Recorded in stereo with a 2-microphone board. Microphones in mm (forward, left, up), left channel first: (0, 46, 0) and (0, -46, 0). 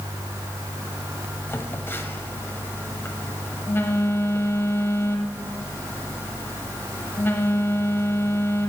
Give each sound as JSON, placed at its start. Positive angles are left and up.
{"t": 1.5, "sound": "a phone buzzing", "side_deg": 25, "distance_m": 1.4}